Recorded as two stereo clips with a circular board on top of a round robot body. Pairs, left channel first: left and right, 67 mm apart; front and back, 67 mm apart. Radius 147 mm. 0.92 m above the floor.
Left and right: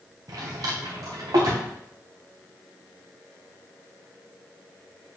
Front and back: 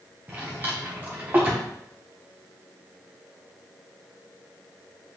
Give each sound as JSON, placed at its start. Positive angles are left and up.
{"t": 0.3, "sound": "a drawer", "azimuth_deg": -115, "distance_m": 0.7}